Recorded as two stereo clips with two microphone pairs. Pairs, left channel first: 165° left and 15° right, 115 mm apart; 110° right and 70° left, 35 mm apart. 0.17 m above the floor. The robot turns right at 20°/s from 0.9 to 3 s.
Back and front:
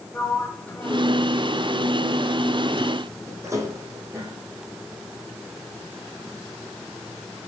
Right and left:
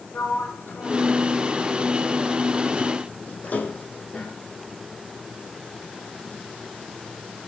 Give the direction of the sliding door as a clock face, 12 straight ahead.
4 o'clock.